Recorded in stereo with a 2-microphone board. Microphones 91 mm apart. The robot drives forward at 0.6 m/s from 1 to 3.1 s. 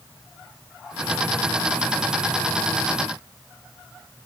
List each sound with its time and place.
Only background noise.